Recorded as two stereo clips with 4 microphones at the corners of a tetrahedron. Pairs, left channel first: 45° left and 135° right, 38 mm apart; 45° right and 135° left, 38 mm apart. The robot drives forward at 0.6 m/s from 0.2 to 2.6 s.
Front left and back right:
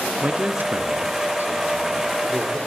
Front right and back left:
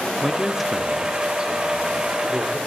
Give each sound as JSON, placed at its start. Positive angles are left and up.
{"t": 0.2, "sound": "a man speaking", "azimuth_deg": -110, "distance_m": 0.6}